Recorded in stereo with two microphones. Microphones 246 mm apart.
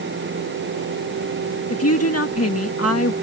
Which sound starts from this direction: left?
A woman speaking, at 1.7 s.